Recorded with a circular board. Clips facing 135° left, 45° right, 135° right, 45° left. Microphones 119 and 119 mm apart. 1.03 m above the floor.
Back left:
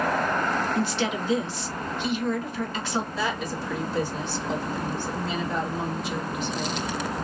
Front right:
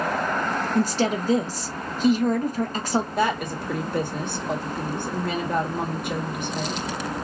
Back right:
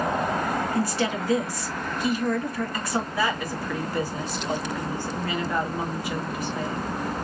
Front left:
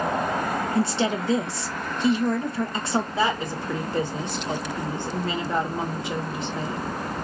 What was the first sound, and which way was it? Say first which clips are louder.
A woman speaking: front right 4 dB, front left 2 dB; 10° right.